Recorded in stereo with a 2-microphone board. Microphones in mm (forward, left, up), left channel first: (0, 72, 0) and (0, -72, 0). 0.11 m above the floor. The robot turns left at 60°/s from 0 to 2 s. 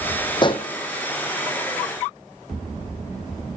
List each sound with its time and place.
0.4 s a pop: 30° left (ahead or behind), 0.7 m; by 0.7 s 45° left (ahead or behind), 0.7 m